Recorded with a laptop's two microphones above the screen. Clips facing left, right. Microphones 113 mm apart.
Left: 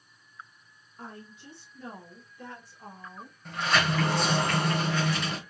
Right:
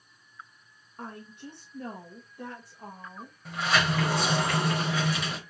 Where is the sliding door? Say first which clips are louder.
Even; 5° right (ahead or behind), 1.1 m.